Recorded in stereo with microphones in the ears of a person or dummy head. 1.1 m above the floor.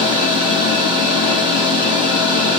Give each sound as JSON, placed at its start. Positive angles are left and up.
{"t": 0.0, "sound": "a machine running", "side_deg": -30, "distance_m": 2.5}